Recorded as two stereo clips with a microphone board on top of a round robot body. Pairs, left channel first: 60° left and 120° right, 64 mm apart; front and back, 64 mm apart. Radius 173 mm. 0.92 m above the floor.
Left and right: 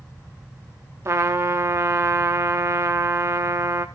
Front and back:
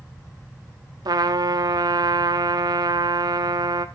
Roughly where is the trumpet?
Behind.